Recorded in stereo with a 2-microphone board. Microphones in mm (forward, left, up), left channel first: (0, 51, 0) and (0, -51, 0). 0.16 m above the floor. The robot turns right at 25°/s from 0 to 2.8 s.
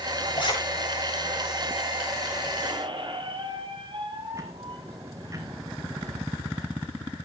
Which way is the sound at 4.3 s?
30° right (ahead or behind).